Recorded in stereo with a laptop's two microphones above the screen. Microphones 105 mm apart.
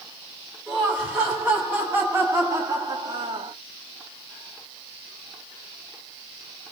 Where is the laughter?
5° right (ahead or behind), 3 m; by 3.5 s 55° right (ahead or behind), 1.3 m.